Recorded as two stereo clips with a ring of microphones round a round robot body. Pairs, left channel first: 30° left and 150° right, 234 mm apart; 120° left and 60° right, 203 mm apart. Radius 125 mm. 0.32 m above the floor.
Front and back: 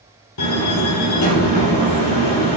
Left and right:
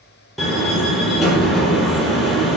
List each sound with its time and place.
0.4 s a door slam: 30° left, 6 m